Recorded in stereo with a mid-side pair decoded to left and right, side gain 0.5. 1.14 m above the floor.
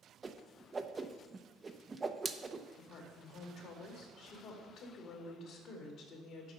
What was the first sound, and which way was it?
A whoosh, 25° right.